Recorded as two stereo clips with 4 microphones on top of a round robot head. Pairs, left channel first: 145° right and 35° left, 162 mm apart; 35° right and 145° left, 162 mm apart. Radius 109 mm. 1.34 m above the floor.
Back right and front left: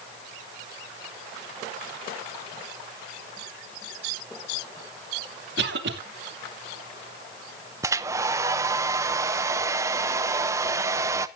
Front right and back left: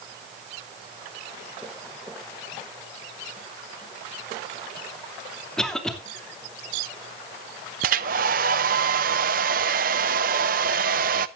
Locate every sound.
5.6 s a cough: 50° left, 3 m
7.8 s a hair dryer: 110° left, 0.6 m